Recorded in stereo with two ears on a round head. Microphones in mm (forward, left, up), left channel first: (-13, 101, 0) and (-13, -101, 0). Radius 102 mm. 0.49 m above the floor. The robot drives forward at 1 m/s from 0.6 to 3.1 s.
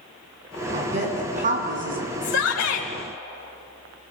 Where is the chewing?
I don't hear chewing.